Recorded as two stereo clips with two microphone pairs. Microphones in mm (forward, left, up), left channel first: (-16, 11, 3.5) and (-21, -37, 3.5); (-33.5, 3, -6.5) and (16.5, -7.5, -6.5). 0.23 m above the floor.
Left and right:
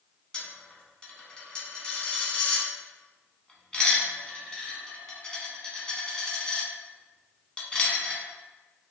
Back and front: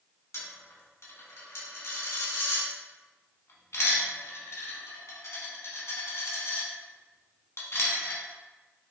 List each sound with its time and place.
0.3 s a dropped coin: 155° left, 0.9 m